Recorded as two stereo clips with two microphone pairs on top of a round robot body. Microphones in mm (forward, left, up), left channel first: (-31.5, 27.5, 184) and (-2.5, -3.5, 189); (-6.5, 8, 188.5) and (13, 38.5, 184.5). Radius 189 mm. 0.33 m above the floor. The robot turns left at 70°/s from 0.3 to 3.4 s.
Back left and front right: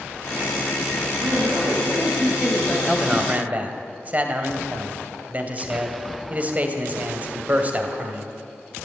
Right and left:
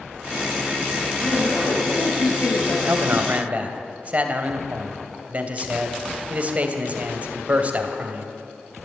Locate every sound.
1.2 s a man speaking: 30° right, 9 m; by 2.8 s 140° right, 9 m
2.9 s a man speaking: 45° left, 2.5 m; by 8.3 s 10° left, 2.5 m